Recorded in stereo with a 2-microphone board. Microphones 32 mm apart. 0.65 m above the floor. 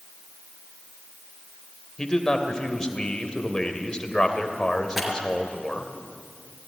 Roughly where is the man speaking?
Left.